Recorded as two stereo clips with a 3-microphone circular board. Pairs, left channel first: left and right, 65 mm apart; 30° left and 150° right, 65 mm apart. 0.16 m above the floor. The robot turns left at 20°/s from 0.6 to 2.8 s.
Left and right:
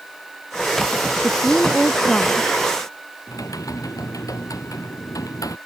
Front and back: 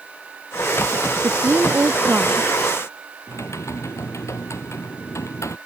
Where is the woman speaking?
175° left; by 2.5 s 145° left.